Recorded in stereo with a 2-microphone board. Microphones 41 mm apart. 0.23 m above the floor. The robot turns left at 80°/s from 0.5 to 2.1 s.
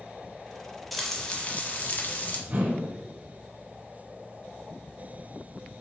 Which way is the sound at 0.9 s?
175° left.